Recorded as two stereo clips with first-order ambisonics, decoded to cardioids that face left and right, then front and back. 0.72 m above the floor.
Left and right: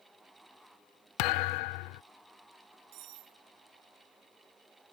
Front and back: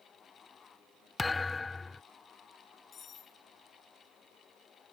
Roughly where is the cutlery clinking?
Ahead right.